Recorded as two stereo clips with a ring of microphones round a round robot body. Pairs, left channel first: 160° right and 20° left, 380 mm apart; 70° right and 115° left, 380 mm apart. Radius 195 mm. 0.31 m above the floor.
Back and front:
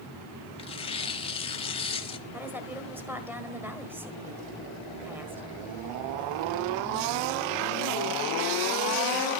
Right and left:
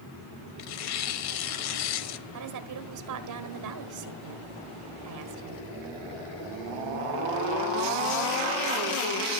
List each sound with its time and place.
0.6 s tearing paper: 85° right, 0.9 m
2.3 s a woman speaking: 105° left, 1.5 m